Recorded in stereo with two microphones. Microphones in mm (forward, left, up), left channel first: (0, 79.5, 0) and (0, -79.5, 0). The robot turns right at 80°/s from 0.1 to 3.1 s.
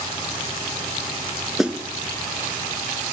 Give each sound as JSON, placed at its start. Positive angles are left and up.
{"t": 1.6, "sound": "a snare drum", "side_deg": 0, "distance_m": 0.8}